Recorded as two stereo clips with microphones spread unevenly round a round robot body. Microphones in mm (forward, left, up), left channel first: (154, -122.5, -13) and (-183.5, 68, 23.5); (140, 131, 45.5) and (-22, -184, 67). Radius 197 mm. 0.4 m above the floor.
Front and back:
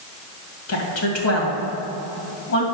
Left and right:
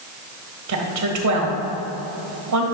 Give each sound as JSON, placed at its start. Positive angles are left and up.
{"t": 0.7, "sound": "a woman speaking", "azimuth_deg": -80, "distance_m": 2.0}